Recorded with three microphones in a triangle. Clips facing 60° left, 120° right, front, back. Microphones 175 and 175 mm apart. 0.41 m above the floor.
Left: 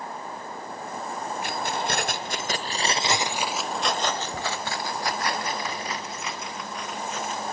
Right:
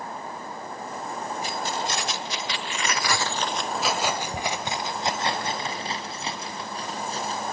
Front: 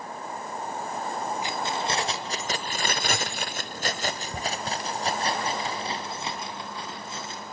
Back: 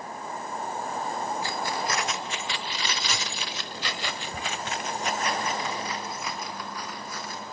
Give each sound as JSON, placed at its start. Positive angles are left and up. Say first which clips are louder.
{"t": 1.4, "sound": "keys jangling", "louder": "left 2 dB, front 1 dB", "azimuth_deg": 70, "distance_m": 1.4}